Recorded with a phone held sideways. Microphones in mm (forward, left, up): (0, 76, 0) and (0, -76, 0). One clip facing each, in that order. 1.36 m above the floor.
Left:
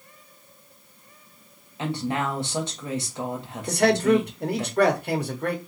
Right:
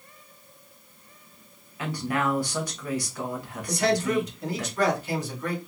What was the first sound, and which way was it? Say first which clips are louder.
A woman speaking: left 1 dB; 25° left (ahead or behind).